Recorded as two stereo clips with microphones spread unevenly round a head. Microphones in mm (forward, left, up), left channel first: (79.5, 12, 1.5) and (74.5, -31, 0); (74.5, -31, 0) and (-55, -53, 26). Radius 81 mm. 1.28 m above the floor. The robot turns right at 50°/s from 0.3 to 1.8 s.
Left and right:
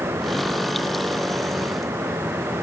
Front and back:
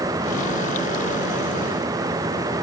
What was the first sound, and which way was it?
Only background noise.